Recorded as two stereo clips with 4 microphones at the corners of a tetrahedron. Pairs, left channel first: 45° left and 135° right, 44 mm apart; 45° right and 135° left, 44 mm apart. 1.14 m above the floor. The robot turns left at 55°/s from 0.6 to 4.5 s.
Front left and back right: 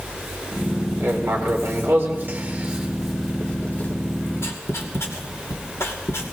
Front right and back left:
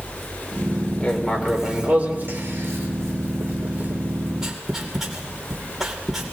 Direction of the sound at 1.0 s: 115° right.